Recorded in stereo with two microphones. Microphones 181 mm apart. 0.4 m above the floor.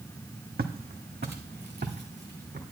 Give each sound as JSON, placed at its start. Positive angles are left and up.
{"t": 0.6, "sound": "footsteps", "side_deg": -65, "distance_m": 0.9}